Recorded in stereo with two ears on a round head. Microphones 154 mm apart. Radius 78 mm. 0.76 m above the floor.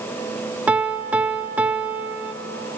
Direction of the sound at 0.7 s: 10° right (ahead or behind).